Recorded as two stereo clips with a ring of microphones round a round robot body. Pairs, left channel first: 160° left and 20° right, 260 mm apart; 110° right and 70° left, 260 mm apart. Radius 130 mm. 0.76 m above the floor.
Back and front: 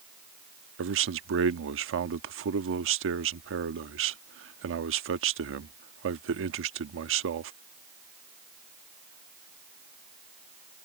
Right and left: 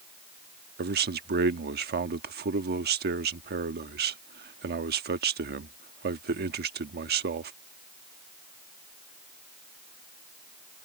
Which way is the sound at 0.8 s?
15° left.